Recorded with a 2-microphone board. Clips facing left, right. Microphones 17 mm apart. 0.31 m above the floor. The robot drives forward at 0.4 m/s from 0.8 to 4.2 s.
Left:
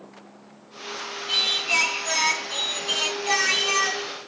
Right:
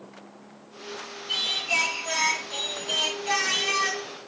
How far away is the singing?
About 3 m.